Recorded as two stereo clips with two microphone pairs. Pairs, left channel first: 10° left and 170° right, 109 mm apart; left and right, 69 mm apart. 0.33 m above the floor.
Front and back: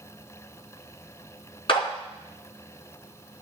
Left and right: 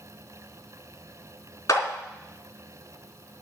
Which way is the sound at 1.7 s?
45° left.